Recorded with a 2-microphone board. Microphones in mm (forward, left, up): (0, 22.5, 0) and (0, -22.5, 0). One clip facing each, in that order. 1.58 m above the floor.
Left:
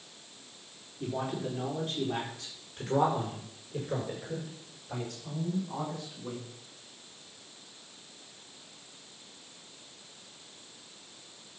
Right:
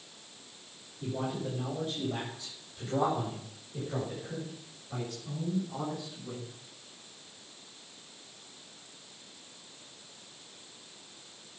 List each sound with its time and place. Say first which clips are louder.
1.0 s a man speaking: left 1 dB; 75° left (ahead or behind), 5 m; by 6.5 s 65° left (ahead or behind), 7.5 m